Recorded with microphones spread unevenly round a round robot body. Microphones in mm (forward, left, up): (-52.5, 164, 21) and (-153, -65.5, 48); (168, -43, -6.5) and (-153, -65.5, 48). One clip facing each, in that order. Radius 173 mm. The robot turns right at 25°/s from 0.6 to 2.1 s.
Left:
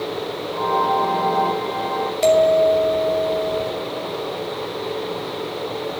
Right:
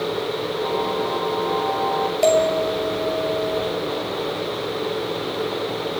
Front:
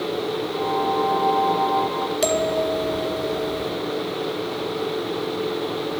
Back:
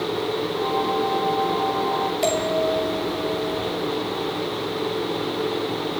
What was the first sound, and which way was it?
A bell, 15° right.